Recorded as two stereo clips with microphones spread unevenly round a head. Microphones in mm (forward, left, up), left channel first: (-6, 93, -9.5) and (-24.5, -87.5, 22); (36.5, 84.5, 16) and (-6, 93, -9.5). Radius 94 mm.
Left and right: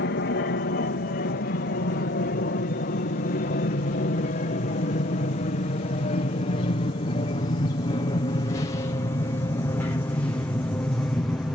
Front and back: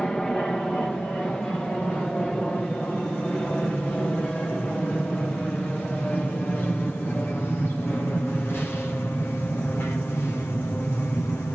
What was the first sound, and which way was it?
An aircraft, 65° left.